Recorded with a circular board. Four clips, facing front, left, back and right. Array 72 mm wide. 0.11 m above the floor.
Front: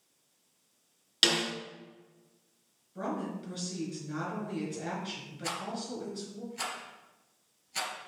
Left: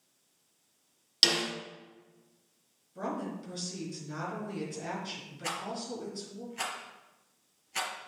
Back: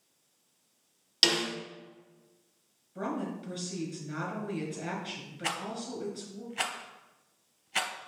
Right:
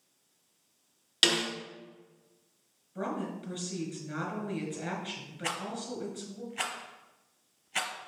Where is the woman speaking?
100° right, 1.7 m.